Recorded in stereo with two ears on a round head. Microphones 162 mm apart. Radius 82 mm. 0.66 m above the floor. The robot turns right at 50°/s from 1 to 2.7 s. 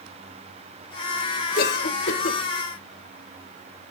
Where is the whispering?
No whispering in this recording.